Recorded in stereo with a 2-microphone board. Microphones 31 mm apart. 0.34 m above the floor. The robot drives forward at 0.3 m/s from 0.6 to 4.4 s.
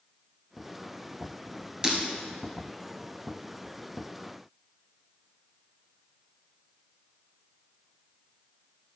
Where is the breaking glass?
20° right (ahead or behind), 1.9 m.